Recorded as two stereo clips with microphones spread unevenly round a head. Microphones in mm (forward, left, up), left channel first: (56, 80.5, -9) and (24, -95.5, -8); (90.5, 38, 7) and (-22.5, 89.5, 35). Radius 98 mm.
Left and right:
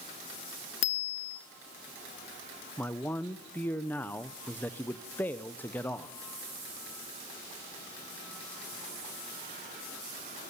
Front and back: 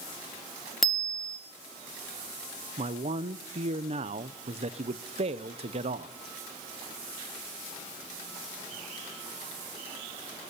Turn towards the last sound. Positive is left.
turn(degrees=160)